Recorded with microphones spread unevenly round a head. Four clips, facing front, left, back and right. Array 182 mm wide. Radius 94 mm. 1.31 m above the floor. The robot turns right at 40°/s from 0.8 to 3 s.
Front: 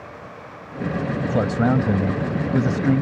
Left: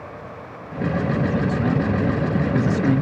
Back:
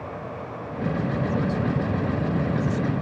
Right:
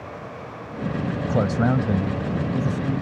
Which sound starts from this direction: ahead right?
A man speaking, at 1.3 s.